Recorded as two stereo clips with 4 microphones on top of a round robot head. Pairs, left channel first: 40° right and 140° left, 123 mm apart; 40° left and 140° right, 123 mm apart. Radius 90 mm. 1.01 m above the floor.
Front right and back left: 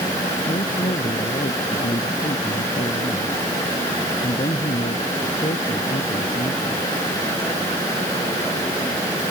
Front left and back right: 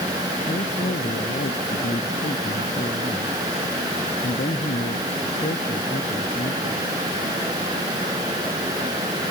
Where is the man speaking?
10° left.